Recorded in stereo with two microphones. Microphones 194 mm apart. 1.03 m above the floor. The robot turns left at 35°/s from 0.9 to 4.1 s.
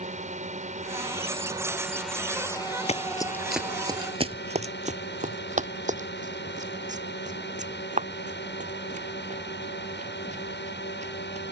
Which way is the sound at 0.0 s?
140° right.